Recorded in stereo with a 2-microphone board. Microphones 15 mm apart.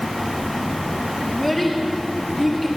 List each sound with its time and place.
1.3 s a child speaking: 10° left (ahead or behind), 4 m